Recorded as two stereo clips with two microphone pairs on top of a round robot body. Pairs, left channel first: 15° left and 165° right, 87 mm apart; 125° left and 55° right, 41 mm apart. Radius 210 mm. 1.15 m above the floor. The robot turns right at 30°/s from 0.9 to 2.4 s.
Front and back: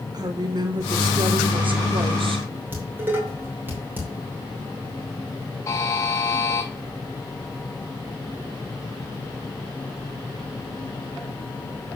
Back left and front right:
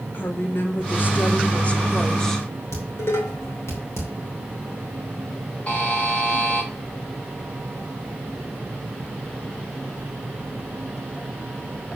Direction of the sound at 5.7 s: 70° left.